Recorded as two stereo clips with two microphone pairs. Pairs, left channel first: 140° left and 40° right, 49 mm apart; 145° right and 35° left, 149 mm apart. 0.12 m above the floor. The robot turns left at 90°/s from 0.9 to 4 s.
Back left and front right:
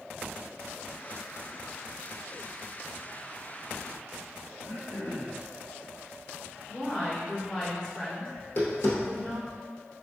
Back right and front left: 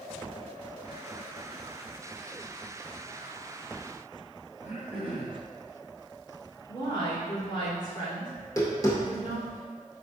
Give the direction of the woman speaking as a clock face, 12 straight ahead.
5 o'clock.